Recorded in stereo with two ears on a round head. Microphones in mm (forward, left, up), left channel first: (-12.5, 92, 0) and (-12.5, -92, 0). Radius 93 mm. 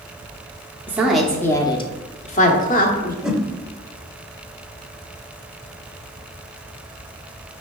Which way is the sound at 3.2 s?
5° right (ahead or behind).